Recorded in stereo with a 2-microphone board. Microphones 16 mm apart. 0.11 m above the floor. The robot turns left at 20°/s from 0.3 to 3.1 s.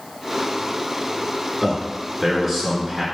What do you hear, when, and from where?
1.6 s a man speaking: 5° left (ahead or behind), 1.3 m; by 3.0 s 15° left (ahead or behind), 1.3 m